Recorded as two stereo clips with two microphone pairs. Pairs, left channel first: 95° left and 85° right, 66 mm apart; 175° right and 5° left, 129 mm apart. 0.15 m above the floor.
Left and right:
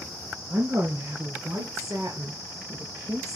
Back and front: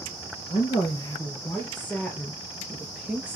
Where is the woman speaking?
120° right, 3.5 m; by 3.4 s 70° right, 3 m.